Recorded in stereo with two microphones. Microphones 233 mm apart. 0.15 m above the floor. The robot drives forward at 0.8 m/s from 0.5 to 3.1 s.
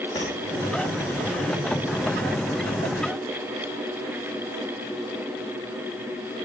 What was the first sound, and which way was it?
Tapping, 15° left (ahead or behind).